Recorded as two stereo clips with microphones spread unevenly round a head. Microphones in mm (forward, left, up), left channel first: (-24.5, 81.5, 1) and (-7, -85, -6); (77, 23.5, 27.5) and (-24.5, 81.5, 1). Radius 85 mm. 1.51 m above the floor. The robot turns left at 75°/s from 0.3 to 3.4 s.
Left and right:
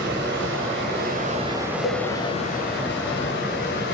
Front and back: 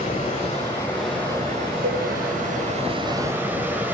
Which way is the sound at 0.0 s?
55° right.